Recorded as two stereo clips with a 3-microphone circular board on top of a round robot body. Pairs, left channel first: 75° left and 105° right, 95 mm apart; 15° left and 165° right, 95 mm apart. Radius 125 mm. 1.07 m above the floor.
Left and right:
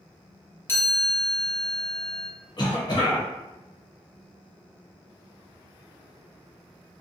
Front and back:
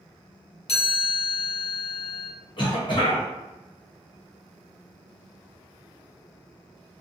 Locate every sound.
0.7 s a chime: 5° left, 0.9 m
2.6 s a cough: 40° left, 1.3 m